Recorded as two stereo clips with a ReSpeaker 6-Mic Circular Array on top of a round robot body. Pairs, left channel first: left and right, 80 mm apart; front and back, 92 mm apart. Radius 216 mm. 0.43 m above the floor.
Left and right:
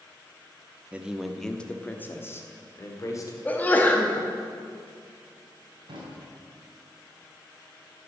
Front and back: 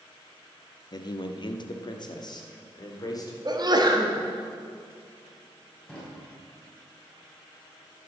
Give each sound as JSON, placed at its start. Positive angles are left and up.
{"t": 0.9, "sound": "a man speaking", "azimuth_deg": -20, "distance_m": 1.1}
{"t": 3.5, "sound": "a sneeze", "azimuth_deg": 155, "distance_m": 1.9}
{"t": 5.9, "sound": "a drawer", "azimuth_deg": -80, "distance_m": 3.5}